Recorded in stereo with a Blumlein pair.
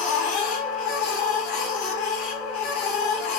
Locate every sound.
0.0 s a machine running: 45° left, 0.7 m